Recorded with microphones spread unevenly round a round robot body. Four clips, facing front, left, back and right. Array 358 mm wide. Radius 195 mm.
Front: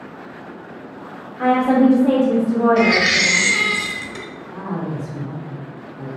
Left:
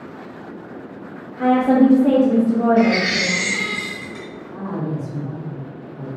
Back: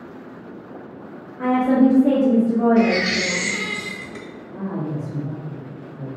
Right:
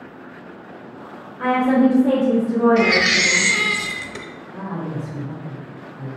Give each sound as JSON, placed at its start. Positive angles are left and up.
{"t": 1.4, "sound": "a woman speaking", "azimuth_deg": 65, "distance_m": 0.9}
{"t": 2.8, "sound": "a baby crying", "azimuth_deg": -60, "distance_m": 0.6}
{"t": 4.5, "sound": "a woman speaking", "azimuth_deg": 105, "distance_m": 1.3}